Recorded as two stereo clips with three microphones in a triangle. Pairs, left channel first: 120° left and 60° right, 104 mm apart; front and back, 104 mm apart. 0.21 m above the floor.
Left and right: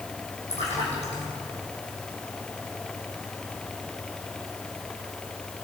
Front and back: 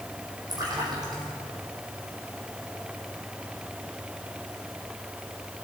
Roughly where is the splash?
Behind left.